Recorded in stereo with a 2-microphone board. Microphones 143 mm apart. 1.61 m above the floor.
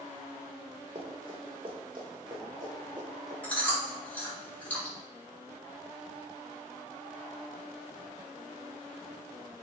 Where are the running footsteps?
45° right (ahead or behind), 4.5 m; by 3.3 s 30° right (ahead or behind), 7.5 m.